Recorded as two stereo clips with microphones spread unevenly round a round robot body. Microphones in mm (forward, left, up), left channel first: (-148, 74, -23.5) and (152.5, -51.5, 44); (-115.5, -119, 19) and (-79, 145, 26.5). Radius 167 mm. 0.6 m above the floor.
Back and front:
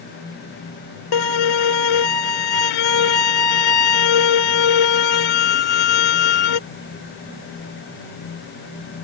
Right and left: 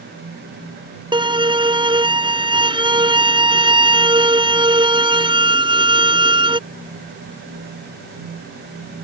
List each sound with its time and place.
1.1 s a violin: 155° left